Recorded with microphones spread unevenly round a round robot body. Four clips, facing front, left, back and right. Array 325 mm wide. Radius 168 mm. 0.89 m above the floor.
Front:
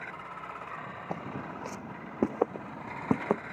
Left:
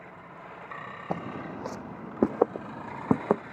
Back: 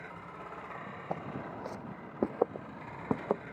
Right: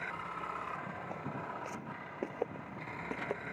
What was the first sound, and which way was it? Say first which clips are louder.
Footsteps: left 10 dB, even; 80° left.